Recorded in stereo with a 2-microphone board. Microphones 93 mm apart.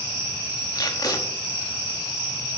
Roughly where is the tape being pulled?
Left.